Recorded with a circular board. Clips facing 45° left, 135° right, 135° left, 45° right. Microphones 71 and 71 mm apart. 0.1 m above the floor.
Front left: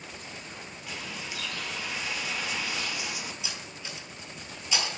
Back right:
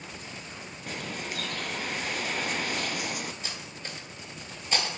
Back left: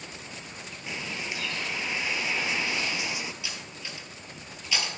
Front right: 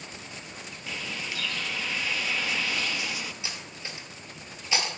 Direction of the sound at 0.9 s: 160° right.